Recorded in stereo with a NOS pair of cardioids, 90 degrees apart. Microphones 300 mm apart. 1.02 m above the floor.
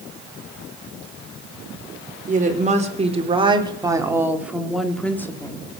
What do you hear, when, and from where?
2.3 s a woman speaking: 25° right, 3.5 m; by 5.6 s 15° left, 2.5 m